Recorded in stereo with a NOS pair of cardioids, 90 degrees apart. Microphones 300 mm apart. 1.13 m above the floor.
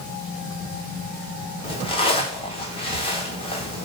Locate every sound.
1.6 s a zipper: 20° left, 0.8 m